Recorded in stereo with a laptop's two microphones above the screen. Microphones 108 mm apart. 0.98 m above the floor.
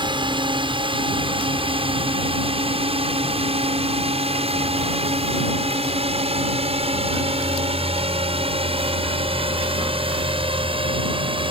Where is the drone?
50° right (ahead or behind); by 11.5 s 55° right (ahead or behind).